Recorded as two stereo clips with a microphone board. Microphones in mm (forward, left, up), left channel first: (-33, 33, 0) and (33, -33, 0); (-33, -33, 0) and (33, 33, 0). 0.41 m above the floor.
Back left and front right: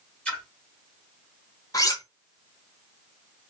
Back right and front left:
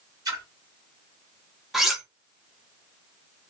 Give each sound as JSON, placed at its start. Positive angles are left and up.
{"t": 0.2, "sound": "a splash", "azimuth_deg": 65, "distance_m": 1.4}
{"t": 1.7, "sound": "cutlery clinking", "azimuth_deg": 130, "distance_m": 0.7}